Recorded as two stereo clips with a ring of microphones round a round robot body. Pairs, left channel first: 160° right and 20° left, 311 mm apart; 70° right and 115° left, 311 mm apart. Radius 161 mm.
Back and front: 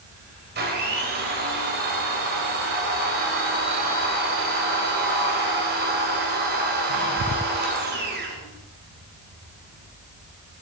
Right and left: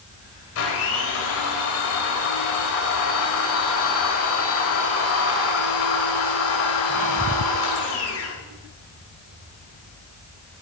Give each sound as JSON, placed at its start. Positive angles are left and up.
{"t": 0.6, "sound": "a blender", "azimuth_deg": -30, "distance_m": 2.0}